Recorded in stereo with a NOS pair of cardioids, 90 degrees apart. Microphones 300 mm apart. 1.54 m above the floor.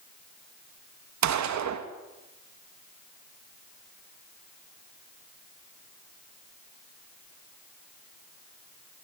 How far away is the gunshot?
About 3 m.